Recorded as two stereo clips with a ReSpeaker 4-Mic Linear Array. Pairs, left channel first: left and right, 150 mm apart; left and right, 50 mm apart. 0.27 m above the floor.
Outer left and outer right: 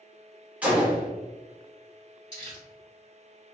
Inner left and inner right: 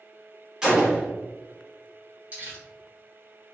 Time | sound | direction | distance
0.6 | a gunshot | 10° right (ahead or behind) | 1.4 m
2.3 | crumpling | 35° right (ahead or behind) | 2.0 m